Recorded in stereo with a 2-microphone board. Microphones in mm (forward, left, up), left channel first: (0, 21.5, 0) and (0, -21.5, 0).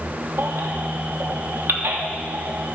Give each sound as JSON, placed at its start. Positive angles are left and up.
{"t": 0.4, "sound": "a baby crying", "side_deg": -65, "distance_m": 1.5}